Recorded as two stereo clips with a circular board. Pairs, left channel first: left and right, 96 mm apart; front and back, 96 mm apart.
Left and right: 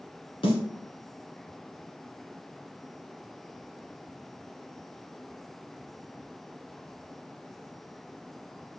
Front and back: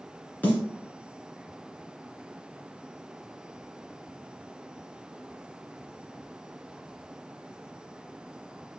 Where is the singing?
I don't hear singing.